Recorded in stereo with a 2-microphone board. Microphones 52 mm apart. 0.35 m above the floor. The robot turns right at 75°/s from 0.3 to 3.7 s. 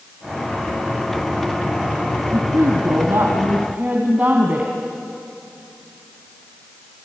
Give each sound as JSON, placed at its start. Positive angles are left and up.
{"t": 2.3, "sound": "a woman speaking", "azimuth_deg": -130, "distance_m": 2.5}